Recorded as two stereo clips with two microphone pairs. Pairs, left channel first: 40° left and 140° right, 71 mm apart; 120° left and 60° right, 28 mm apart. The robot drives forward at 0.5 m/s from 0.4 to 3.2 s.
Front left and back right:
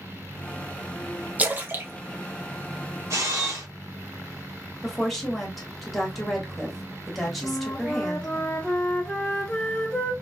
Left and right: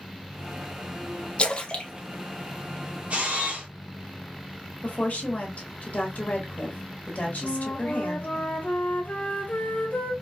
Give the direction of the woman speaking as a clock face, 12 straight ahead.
8 o'clock.